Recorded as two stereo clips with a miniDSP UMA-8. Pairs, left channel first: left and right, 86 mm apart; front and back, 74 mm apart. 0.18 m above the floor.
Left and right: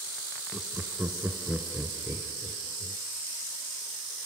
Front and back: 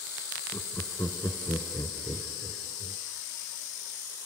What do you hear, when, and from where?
0.5 s laughter: 25° right, 1.8 m